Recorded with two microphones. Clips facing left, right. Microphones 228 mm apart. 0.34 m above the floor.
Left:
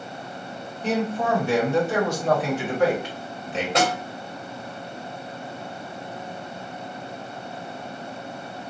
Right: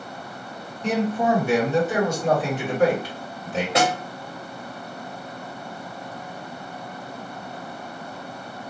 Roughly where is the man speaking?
Centre.